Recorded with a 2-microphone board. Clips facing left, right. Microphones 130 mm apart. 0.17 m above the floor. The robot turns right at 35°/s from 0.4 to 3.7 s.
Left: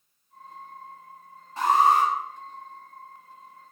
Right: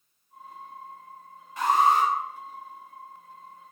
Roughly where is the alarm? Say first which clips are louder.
Left 1 dB; left.